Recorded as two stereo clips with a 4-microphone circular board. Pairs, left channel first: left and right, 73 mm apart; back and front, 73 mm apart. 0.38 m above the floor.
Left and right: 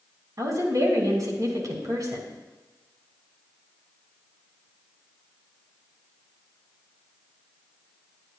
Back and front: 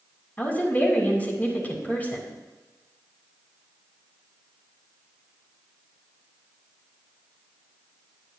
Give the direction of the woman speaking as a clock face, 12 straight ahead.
4 o'clock.